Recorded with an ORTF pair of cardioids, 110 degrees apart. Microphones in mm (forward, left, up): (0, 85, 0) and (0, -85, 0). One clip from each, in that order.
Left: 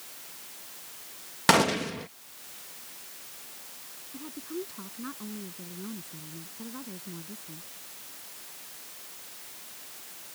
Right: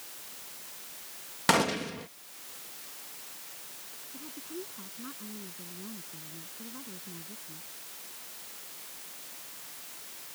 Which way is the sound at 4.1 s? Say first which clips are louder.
Left 5 dB; 30° left.